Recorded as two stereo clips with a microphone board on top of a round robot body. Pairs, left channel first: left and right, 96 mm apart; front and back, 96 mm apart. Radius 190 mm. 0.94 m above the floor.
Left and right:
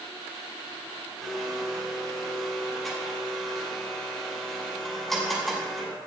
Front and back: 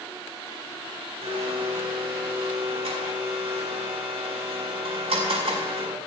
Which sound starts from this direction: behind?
A blender, at 1.2 s.